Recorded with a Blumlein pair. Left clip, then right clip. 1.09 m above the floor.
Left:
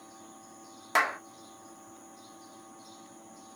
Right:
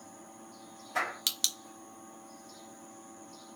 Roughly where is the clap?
Ahead left.